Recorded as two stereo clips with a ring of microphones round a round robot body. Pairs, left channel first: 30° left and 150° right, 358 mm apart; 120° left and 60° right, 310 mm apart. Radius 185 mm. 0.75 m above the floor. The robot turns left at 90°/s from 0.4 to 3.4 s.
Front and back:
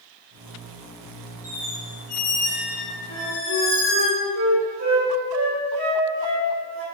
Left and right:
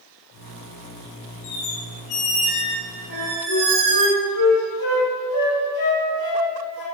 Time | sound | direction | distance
1.4 | a squeak | 140° left | 1.2 m
3.1 | a flute | straight behind | 1.7 m